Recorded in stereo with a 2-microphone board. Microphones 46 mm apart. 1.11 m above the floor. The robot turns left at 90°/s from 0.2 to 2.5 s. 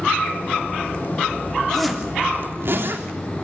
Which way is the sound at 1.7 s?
10° left (ahead or behind).